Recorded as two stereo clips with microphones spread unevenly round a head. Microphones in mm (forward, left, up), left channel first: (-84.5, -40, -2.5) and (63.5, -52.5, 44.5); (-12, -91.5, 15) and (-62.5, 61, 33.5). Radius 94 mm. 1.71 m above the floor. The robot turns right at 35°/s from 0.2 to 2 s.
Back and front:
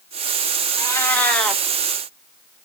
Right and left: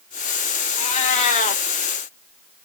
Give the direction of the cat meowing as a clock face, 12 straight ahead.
3 o'clock.